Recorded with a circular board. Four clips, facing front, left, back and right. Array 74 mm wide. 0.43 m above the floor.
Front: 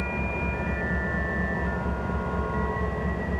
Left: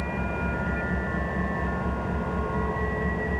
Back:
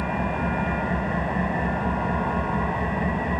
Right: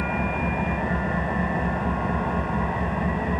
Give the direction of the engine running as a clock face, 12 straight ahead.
5 o'clock.